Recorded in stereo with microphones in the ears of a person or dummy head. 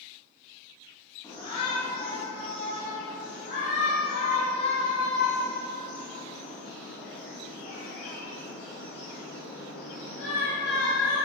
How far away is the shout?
About 1.8 m.